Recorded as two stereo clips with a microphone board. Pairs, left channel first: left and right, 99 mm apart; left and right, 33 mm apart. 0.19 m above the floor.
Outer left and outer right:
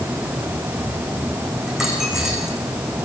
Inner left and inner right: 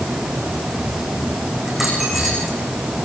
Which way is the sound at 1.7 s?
5° right (ahead or behind).